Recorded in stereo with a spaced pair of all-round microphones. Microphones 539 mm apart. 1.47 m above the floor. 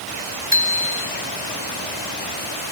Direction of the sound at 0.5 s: 55° right (ahead or behind).